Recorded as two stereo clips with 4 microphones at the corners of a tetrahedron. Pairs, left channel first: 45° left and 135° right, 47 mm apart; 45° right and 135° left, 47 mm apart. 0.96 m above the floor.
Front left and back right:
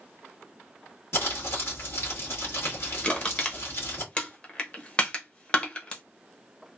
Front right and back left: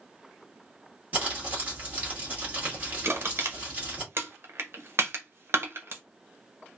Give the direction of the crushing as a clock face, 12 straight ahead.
8 o'clock.